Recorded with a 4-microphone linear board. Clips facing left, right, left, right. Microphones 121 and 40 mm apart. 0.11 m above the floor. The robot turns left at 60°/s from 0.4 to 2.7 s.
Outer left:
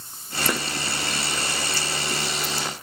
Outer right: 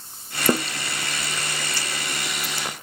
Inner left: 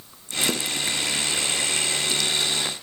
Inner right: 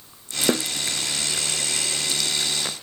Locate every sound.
0.5 s a snare drum: 35° right (ahead or behind), 0.7 m; by 0.7 s 40° right (ahead or behind), 0.7 m